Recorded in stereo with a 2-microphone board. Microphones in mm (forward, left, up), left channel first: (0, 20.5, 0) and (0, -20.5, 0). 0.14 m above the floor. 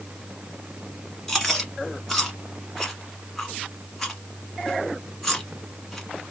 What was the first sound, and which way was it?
Chewing, 5° left (ahead or behind).